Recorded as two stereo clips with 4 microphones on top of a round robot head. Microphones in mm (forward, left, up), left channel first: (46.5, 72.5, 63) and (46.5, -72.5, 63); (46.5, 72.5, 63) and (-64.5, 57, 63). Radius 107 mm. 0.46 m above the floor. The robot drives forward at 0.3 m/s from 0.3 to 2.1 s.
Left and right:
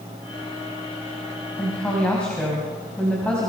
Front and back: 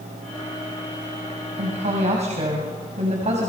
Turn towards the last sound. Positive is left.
turn(degrees=175)